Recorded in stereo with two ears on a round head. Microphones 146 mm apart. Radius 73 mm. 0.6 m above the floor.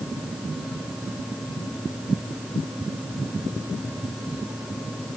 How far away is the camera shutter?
I don't hear a camera shutter.